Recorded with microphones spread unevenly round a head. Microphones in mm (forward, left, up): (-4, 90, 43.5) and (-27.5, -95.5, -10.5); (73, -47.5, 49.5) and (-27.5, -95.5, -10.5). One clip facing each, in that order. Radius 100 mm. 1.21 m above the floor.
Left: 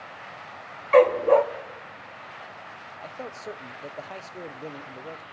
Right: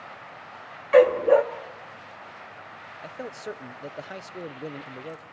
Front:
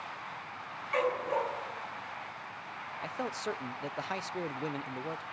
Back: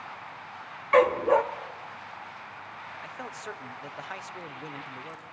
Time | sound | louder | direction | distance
0.9 | a dog barking | right 1 dB, back 10 dB | 165° left | 0.7 m
3.0 | a man speaking | right 2 dB, front 6 dB | 50° right | 0.6 m